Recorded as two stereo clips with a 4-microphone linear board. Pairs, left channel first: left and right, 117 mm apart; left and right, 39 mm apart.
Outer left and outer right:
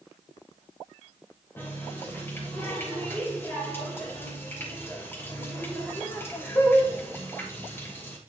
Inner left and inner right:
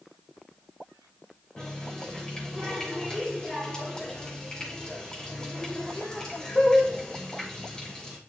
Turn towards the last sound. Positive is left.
turn(degrees=20)  # may be behind; listen again after turning